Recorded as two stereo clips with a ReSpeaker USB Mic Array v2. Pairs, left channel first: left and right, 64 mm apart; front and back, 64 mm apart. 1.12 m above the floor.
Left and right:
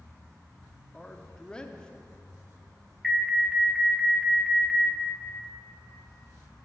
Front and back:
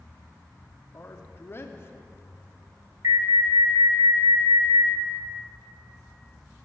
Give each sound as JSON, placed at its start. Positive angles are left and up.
{"t": 0.9, "sound": "a man speaking", "azimuth_deg": 20, "distance_m": 0.7}
{"t": 3.0, "sound": "an alarm", "azimuth_deg": 180, "distance_m": 1.1}